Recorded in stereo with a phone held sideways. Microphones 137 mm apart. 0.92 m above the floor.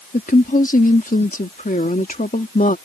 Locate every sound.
0.1 s a woman speaking: 75° left (ahead or behind)